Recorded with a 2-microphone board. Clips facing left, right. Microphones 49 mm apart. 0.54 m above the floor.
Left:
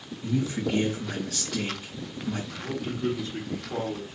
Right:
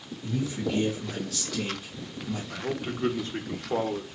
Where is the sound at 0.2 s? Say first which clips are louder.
Left 2 dB; 70° left (ahead or behind), 3.5 m.